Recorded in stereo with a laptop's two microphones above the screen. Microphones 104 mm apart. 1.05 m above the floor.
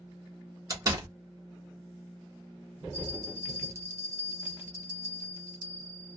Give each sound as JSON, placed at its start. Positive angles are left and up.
{"t": 0.7, "sound": "a door slam", "side_deg": -35, "distance_m": 1.1}
{"t": 2.9, "sound": "a bell", "side_deg": -25, "distance_m": 0.6}